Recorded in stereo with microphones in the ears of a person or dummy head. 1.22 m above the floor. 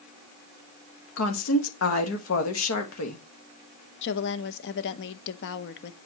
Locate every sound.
1.2 s a woman speaking: 75° left (ahead or behind), 1.4 m
4.0 s a woman speaking: 65° left (ahead or behind), 0.7 m